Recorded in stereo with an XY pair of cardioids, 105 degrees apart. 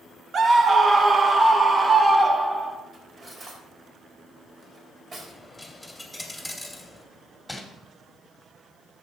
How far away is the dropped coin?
About 2.5 m.